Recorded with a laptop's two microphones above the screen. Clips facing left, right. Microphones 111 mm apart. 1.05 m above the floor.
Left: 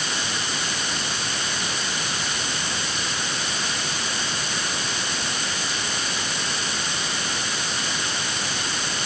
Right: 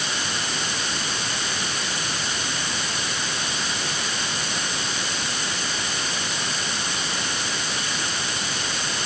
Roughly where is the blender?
No blender in this recording.